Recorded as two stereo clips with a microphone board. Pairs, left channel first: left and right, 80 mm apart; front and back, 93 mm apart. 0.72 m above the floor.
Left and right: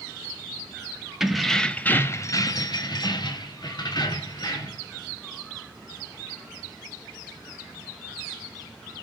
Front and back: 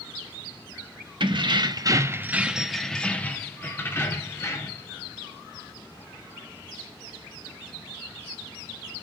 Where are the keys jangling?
175° right, 0.9 m; by 4.9 s 55° left, 1.9 m.